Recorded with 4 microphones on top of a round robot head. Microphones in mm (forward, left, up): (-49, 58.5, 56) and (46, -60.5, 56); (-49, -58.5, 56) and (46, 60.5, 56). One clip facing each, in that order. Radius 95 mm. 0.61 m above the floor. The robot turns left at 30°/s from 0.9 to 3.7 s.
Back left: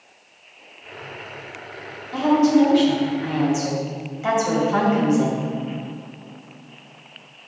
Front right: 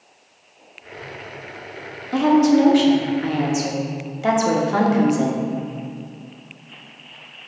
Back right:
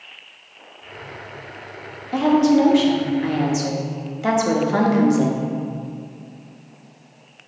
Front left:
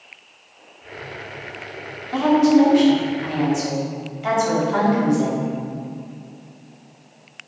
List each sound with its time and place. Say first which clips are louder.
2.1 s a woman speaking: front right 2 dB, front left 1 dB; 55° right, 1.3 m; by 5.5 s 100° right, 1.3 m